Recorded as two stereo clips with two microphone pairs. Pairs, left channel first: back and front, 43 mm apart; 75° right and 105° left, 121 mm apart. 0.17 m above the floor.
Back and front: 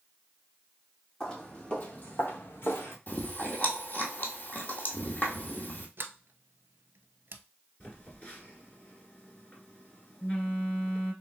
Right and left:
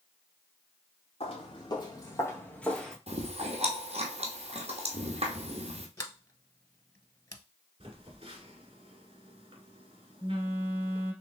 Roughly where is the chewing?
Behind left.